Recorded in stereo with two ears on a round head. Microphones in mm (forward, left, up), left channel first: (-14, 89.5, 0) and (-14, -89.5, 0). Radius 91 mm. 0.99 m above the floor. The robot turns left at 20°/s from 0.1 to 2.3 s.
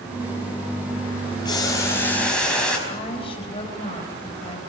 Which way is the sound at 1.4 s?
20° left (ahead or behind).